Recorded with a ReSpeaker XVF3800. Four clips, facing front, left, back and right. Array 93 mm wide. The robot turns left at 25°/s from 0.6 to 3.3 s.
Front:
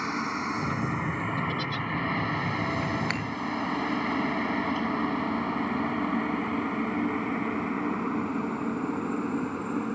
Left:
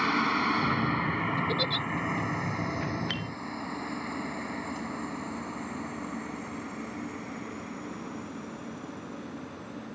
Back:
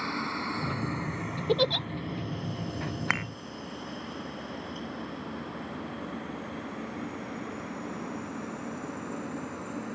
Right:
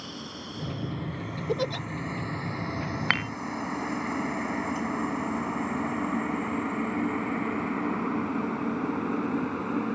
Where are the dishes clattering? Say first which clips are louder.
Right 8 dB, back 1 dB; 115° right; by 3.3 s 120° right.